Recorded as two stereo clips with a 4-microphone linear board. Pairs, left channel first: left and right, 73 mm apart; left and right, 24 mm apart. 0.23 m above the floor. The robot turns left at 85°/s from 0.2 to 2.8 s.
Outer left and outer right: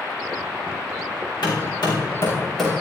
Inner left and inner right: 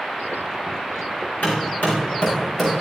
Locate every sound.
1.4 s hammering: 75° left (ahead or behind), 6.5 m; by 2.7 s 5° right (ahead or behind), 6.5 m